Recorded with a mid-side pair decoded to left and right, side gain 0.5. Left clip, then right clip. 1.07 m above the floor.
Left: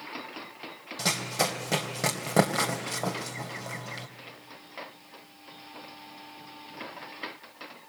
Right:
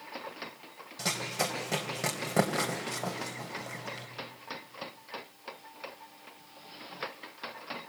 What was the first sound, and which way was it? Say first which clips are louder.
Running footsteps: left 4 dB; 45° left.